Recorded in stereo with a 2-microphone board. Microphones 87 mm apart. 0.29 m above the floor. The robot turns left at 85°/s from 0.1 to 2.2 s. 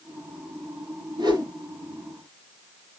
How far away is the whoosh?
About 2.5 m.